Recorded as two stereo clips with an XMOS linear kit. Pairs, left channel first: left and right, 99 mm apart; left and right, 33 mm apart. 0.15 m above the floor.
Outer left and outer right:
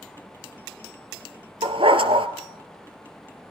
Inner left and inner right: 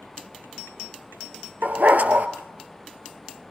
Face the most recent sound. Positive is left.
turn(degrees=-65)  # may be behind; listen again after turning